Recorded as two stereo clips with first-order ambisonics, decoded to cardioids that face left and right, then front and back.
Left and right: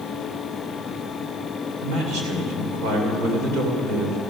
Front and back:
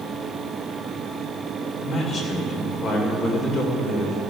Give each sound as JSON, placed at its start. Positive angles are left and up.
{"t": 1.8, "sound": "a man speaking", "azimuth_deg": -60, "distance_m": 3.0}